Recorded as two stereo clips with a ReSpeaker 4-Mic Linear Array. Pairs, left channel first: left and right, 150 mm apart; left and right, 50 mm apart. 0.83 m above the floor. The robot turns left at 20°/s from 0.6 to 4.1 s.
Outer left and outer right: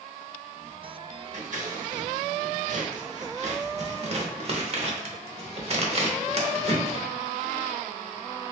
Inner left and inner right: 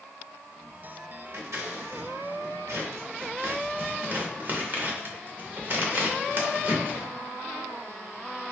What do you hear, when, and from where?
1.3 s scissors: 60° right (ahead or behind), 0.8 m; by 7.0 s 45° right (ahead or behind), 0.8 m